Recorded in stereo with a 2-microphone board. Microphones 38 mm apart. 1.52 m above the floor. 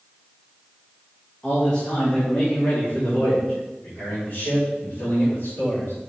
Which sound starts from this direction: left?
A man speaking, at 1.4 s.